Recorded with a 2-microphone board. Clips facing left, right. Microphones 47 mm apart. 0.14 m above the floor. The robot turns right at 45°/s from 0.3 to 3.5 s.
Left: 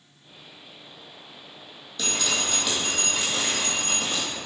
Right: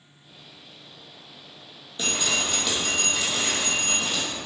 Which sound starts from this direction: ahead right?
Dripping, at 2.0 s.